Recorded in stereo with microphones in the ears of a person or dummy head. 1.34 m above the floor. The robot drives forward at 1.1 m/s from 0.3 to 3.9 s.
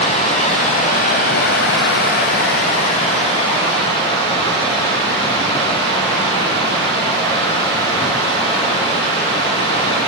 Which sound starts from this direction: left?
Running water, at 0.0 s.